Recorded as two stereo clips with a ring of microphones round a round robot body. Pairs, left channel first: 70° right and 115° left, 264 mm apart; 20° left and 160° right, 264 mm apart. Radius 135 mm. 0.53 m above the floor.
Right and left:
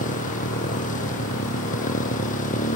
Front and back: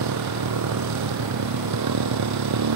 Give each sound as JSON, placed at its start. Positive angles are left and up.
{"t": 0.0, "sound": "a motorcycle", "azimuth_deg": -130}